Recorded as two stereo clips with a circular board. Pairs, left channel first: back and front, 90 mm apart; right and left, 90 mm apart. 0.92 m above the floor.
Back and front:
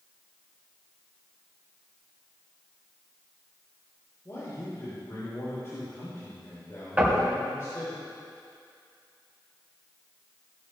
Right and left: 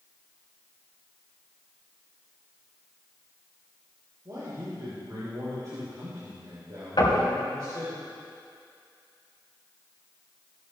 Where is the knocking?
70° right, 5 m.